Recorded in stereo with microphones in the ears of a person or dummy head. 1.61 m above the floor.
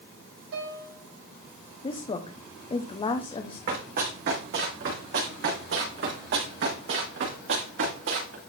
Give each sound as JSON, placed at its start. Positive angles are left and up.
{"t": 0.5, "sound": "a piano", "side_deg": -65, "distance_m": 4.0}
{"t": 1.8, "sound": "a woman speaking", "side_deg": 30, "distance_m": 0.8}
{"t": 3.7, "sound": "running footsteps", "side_deg": -60, "distance_m": 4.5}